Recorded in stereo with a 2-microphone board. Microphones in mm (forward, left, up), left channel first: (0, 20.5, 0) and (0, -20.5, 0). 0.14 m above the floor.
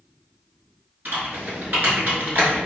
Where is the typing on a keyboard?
50° right (ahead or behind), 0.9 m.